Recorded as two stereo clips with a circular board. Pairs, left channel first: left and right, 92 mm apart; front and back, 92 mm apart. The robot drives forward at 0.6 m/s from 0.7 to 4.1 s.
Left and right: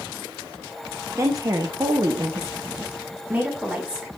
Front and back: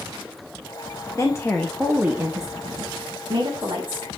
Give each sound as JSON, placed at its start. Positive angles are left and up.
{"t": 1.1, "sound": "a woman speaking", "azimuth_deg": -40, "distance_m": 0.7}